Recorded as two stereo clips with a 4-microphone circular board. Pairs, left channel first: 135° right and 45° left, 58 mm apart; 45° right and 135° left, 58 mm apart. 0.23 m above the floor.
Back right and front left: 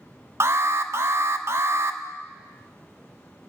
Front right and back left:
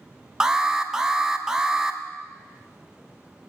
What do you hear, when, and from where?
0.4 s an alarm: 60° left, 1.1 m